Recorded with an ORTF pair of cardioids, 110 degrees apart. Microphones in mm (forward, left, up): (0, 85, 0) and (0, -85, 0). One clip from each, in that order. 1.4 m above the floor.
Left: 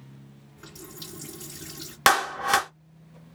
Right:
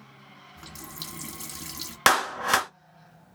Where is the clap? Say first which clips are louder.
Left 1 dB; straight ahead, 0.5 m.